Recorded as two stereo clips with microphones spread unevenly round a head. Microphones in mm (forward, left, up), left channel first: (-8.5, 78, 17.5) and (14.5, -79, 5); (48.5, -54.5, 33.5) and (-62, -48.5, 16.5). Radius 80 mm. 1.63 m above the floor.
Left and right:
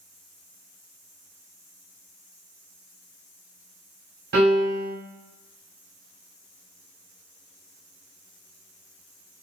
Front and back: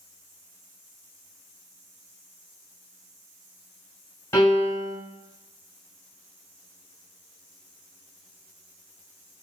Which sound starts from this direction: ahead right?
A piano, at 4.3 s.